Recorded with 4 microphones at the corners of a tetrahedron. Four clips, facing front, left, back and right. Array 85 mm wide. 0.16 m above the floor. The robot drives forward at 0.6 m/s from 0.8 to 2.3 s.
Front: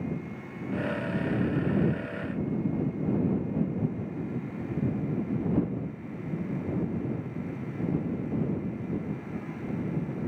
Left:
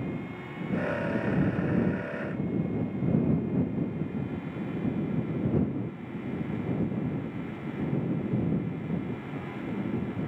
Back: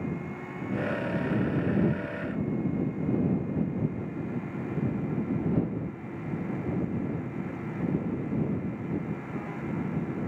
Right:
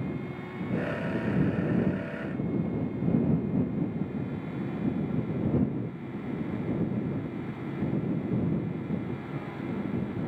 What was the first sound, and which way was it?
Only background noise.